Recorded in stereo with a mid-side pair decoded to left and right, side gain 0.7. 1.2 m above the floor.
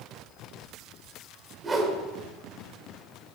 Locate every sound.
1.6 s a whoosh: 20° right, 2 m